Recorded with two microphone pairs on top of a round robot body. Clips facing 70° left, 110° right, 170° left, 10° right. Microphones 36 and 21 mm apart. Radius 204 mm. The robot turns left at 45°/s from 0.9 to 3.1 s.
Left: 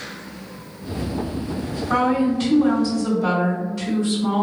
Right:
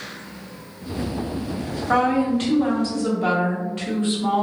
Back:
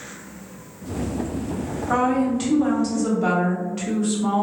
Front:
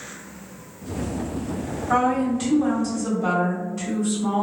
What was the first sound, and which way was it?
A woman speaking, 90° right.